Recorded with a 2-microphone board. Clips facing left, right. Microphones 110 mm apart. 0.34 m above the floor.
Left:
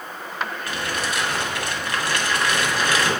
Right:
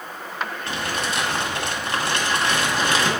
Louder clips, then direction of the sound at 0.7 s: Right 2 dB; 30° right (ahead or behind).